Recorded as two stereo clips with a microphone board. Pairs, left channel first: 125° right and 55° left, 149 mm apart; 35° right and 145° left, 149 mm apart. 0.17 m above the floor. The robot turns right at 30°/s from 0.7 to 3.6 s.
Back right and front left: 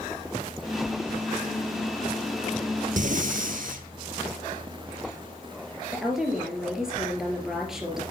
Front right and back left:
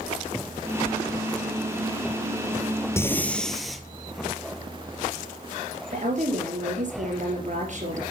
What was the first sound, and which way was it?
Breathing, 35° left.